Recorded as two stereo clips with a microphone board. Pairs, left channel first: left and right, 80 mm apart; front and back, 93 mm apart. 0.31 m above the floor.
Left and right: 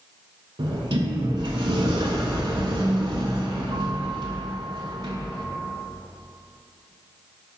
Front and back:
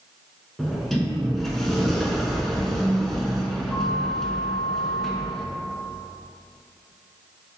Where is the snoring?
I don't hear snoring.